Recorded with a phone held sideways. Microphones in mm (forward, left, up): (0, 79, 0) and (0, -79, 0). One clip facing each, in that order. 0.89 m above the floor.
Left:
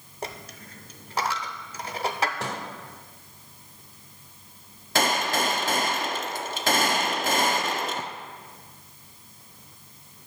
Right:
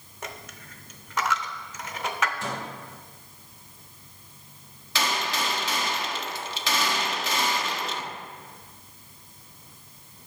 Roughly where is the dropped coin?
Left.